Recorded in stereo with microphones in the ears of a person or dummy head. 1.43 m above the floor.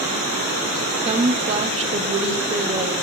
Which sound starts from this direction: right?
A woman speaking, at 1.1 s.